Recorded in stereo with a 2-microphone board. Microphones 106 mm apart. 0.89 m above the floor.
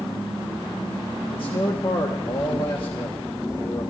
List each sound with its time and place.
1.3 s a man speaking: 50° left (ahead or behind), 1.1 m